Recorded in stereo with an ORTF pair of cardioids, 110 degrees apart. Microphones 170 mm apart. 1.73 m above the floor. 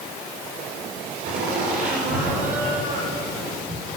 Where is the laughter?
60° right, 6.5 m; by 4.0 s 50° right, 7.5 m.